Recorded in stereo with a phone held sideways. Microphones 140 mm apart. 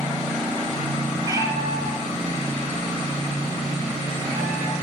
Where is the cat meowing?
25° right (ahead or behind), 5 m; by 4.7 s 10° right (ahead or behind), 8.5 m.